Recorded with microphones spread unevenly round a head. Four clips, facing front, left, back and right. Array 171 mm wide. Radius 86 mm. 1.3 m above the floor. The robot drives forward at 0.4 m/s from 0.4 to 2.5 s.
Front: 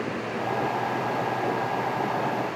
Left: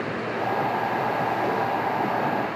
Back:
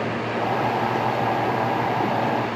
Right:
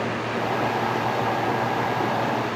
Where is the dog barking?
No dog barking in this recording.